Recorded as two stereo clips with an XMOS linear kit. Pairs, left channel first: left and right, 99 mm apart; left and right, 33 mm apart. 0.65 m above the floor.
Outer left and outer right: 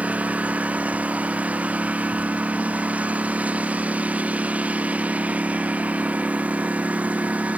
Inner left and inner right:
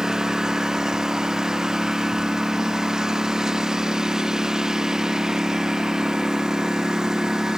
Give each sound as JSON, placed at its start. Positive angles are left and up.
{"t": 0.0, "sound": "a lawn mower", "side_deg": -15}